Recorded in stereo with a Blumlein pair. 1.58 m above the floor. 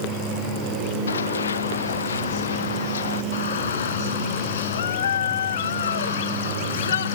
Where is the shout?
65° left.